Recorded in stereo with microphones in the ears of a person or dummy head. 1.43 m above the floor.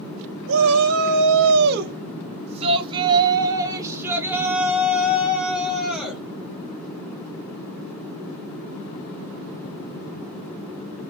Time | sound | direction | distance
0.5 | a shout | 80° right | 0.9 m